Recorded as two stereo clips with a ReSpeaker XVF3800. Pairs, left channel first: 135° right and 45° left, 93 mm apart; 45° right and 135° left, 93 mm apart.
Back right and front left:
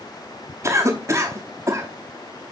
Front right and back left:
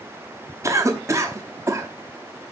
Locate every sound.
0.6 s a cough: 90° left, 1.0 m